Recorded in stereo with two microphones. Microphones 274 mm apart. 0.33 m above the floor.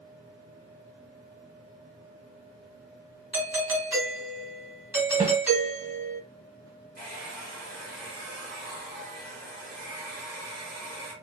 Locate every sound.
3.3 s a doorbell: 10° right (ahead or behind), 1.8 m
5.2 s a snare drum: 30° right (ahead or behind), 1.0 m
7.0 s a hair dryer: 30° right (ahead or behind), 1.9 m